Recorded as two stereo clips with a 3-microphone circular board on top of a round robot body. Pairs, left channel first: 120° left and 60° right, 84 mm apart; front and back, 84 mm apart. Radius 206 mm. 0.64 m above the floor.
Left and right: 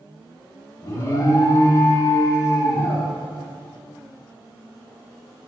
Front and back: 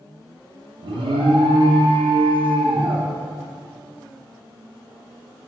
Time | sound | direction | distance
0.8 | an alarm | 175° left | 1.0 m